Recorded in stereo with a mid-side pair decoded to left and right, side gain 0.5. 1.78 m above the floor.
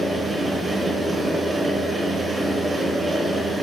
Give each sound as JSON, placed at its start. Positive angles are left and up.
{"t": 0.0, "sound": "a fan", "azimuth_deg": -15, "distance_m": 1.2}